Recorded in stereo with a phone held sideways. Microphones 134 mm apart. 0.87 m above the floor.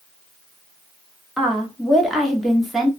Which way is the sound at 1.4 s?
Centre (ahead or behind).